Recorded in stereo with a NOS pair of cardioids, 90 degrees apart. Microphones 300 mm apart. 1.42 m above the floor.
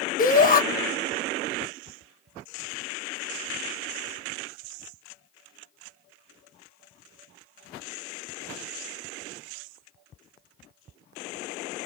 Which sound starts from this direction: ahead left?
A shout, at 0.2 s.